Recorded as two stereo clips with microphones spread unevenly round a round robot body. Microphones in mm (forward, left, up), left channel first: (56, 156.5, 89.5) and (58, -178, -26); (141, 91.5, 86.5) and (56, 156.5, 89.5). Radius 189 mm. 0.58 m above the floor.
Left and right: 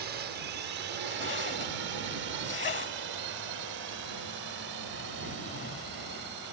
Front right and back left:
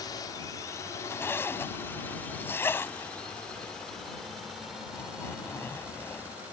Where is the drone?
75° right; by 6.5 s 135° right.